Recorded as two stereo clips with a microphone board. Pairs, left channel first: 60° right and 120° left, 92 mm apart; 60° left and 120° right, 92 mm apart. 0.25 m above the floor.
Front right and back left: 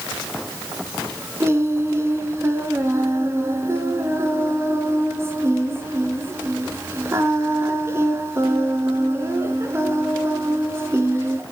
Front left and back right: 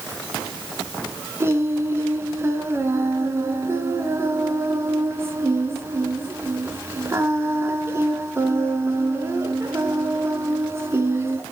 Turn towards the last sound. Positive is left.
turn(degrees=180)